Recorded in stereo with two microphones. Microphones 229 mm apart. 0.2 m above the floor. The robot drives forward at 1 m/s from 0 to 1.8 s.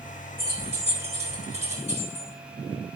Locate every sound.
0.4 s keys jangling: 25° right (ahead or behind), 7.5 m; by 2.3 s 30° right (ahead or behind), 6.5 m